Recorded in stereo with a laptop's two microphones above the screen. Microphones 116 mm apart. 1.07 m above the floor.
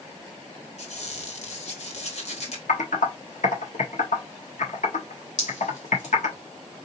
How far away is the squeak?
About 1.6 m.